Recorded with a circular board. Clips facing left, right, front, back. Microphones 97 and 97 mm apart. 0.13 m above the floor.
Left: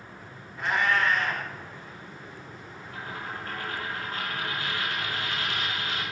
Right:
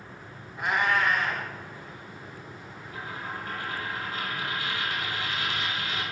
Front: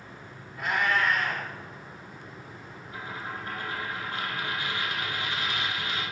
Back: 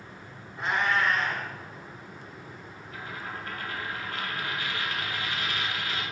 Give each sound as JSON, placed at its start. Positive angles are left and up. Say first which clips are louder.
{"t": 0.6, "sound": "a cat meowing", "louder": "even, even", "azimuth_deg": -150, "distance_m": 0.7}
{"t": 2.9, "sound": "a dropped coin", "louder": "even, front 1 dB", "azimuth_deg": 65, "distance_m": 1.2}